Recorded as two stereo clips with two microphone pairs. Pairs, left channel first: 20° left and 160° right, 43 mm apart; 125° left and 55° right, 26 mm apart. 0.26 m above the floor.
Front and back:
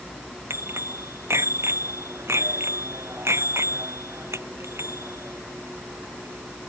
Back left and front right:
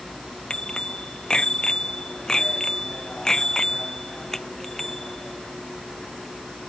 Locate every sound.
0.5 s a bicycle bell: straight behind; by 6.7 s 155° right